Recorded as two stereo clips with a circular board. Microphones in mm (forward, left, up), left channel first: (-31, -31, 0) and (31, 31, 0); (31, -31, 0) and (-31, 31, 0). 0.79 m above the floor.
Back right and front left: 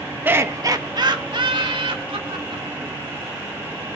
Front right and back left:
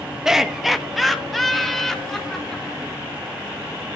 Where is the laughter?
60° left, 1.0 m; by 3.0 s 40° left, 3.5 m.